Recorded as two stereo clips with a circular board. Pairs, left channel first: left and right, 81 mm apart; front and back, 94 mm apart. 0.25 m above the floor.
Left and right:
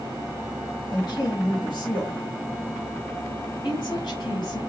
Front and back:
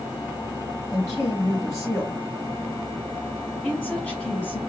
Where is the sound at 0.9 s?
60° left, 3.5 m.